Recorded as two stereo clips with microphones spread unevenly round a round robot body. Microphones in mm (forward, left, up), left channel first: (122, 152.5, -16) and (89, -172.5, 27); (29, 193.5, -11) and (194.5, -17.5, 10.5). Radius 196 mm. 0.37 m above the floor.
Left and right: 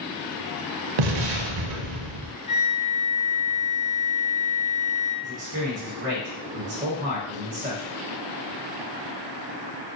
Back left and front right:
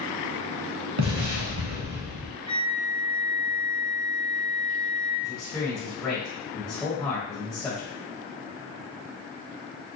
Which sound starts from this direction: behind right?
A man speaking, at 5.2 s.